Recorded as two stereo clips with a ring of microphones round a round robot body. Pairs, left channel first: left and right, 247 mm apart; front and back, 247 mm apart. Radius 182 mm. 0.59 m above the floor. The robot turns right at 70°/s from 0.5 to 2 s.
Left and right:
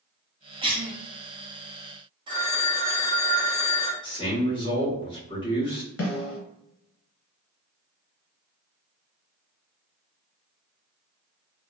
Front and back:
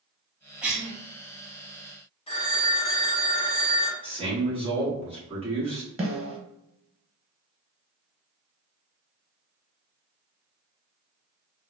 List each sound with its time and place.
0.6 s a cough: 105° right, 0.6 m; by 0.9 s 85° right, 0.6 m
2.3 s a phone ringing: 40° right, 0.6 m
4.0 s a man speaking: 140° left, 1.3 m
6.0 s a snare drum: 115° left, 1.3 m